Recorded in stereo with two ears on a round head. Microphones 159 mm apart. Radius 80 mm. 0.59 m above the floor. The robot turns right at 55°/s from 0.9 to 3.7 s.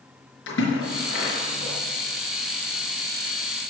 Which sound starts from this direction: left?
A splash, at 0.5 s.